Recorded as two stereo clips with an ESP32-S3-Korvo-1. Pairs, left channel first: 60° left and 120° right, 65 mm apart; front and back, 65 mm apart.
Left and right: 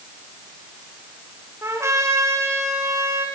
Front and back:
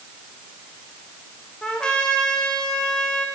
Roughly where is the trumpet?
Right.